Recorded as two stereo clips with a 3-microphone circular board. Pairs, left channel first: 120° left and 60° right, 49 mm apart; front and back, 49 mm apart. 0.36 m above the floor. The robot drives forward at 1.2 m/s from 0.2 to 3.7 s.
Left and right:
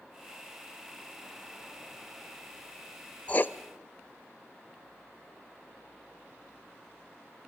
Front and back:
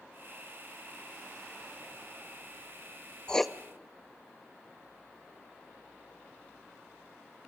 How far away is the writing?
About 0.6 m.